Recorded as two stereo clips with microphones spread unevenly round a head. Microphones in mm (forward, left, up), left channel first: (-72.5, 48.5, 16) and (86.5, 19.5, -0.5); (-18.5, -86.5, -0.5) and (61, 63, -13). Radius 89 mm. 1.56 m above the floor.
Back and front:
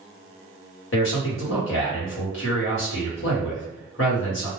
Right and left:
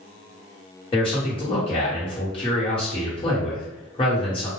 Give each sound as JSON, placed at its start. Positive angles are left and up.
{"t": 0.9, "sound": "a man speaking", "azimuth_deg": 180, "distance_m": 1.2}